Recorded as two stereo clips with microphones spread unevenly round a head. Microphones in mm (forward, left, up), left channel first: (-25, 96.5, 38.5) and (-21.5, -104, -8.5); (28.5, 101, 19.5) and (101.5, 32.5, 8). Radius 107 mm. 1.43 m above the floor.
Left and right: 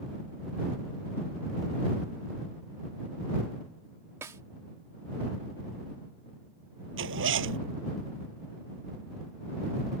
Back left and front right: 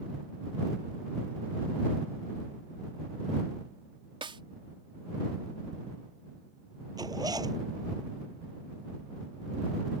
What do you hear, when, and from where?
4.2 s a snare drum: 10° right
7.0 s a zipper: 120° right